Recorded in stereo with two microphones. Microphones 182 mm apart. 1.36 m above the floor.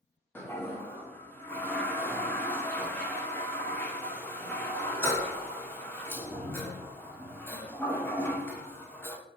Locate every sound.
0.3 s a toilet flushing: 10° left (ahead or behind), 0.5 m